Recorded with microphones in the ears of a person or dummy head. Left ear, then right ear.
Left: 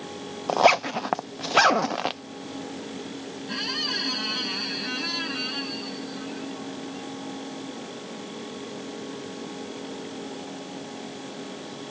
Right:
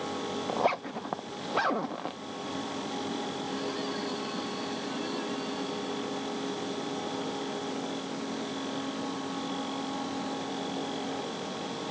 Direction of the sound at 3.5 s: 60° left (ahead or behind).